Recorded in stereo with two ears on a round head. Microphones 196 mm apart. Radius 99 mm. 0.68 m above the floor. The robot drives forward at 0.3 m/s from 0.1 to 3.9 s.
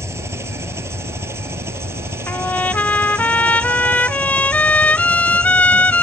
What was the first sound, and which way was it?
An engine running, 10° right (ahead or behind).